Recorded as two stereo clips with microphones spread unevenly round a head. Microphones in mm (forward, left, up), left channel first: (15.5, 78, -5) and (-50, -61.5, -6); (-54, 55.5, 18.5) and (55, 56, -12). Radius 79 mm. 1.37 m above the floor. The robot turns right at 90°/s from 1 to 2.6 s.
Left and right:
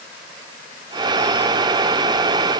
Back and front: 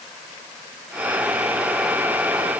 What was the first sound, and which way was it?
Only background noise.